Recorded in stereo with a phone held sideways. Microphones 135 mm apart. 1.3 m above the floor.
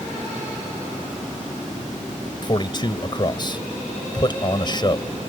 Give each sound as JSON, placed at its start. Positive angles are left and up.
{"t": 2.4, "sound": "a man speaking", "side_deg": 35}